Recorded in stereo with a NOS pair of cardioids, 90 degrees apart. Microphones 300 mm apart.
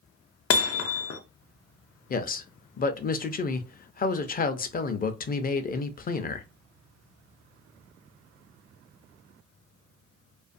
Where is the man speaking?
30° left, 0.5 m.